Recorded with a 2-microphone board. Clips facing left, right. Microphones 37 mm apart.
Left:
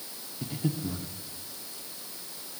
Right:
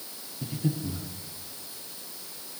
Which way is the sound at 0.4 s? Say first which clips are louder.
Right 1 dB; 15° left (ahead or behind).